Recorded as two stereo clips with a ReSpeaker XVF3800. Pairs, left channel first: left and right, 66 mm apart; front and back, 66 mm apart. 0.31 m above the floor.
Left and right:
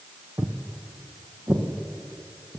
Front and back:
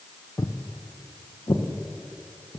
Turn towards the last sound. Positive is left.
turn(degrees=-30)